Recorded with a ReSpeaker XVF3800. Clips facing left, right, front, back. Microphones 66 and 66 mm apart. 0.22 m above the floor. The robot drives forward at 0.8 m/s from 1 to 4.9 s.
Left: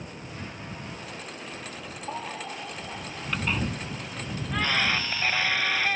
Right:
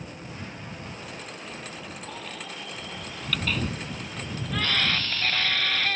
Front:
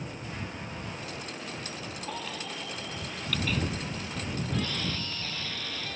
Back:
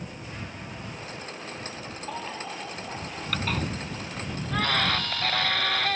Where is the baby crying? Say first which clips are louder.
Left 8 dB, back 4 dB; 110° left; by 6.0 s 165° left.